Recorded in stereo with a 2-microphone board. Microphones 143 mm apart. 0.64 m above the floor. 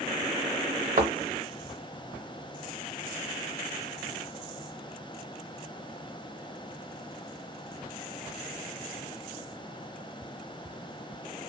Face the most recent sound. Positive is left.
turn(degrees=-60)  # may be behind; listen again after turning